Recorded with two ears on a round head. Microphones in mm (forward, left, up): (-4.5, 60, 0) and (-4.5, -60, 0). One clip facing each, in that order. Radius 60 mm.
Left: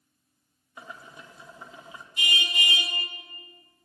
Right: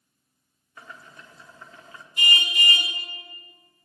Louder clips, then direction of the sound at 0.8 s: Left 2 dB; 15° left (ahead or behind).